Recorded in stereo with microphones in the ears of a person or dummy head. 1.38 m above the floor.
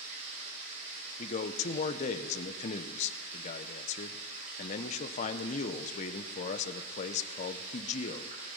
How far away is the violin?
No violin in this recording.